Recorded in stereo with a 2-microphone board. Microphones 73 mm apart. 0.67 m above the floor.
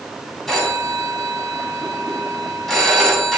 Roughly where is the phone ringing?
Centre.